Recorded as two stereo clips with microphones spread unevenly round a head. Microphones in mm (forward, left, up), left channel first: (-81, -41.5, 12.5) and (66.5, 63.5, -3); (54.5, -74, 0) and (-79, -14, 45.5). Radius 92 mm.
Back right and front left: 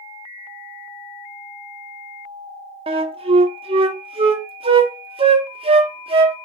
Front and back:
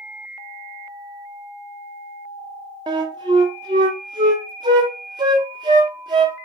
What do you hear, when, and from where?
2.9 s a flute: 95° left, 0.7 m